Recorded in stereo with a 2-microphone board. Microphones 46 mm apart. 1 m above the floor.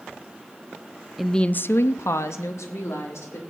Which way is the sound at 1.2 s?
5° right (ahead or behind).